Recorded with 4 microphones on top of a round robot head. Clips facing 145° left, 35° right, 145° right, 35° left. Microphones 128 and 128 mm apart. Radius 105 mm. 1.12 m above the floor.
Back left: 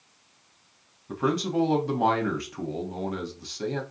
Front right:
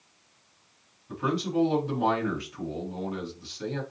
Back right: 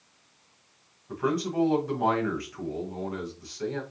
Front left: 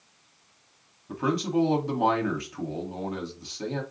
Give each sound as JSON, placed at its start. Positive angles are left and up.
{"t": 1.1, "sound": "a man speaking", "azimuth_deg": 100, "distance_m": 1.1}